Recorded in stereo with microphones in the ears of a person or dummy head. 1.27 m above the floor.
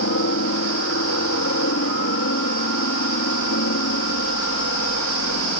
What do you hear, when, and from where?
0.0 s a helicopter: 60° left (ahead or behind)